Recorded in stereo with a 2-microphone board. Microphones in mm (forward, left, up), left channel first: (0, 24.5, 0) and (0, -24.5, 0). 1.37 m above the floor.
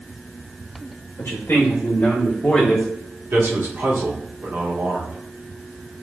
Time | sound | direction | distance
1.2 | a man speaking | 75° left (ahead or behind) | 1.2 m
3.3 | a man speaking | 60° right (ahead or behind) | 1.4 m